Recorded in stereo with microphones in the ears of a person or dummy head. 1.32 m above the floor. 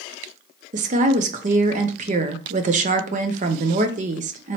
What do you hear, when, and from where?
0.7 s a woman speaking: 40° right (ahead or behind), 0.6 m